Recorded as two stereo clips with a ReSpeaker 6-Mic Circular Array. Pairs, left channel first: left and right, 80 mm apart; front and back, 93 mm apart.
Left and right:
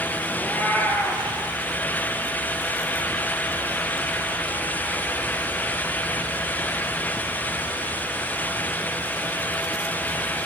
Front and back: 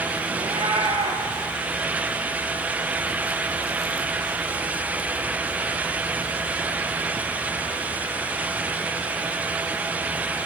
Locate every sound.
0.3 s a cat meowing: 155° left, 3 m